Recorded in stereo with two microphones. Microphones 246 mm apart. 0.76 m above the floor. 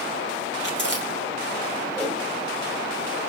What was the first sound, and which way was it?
Chewing, 45° left (ahead or behind).